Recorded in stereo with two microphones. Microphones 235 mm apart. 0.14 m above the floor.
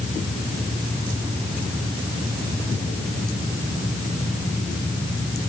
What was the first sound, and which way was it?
Only background noise.